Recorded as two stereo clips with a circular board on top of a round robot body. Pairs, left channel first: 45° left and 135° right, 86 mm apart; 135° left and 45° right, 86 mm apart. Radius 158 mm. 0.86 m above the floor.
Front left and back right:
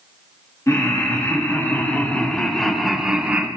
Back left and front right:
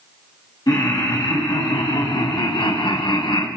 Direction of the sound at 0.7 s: 95° left.